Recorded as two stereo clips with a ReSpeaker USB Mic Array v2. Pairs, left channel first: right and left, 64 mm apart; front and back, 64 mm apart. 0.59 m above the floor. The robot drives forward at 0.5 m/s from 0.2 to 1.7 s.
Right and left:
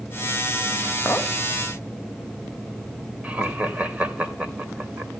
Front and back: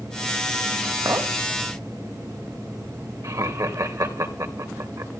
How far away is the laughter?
About 3 m.